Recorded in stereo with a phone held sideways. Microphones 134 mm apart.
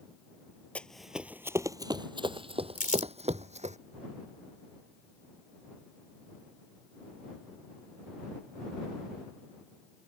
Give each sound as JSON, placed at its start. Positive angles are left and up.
{"t": 0.8, "sound": "running footsteps", "side_deg": 10}
{"t": 2.8, "sound": "crumpling", "side_deg": 75}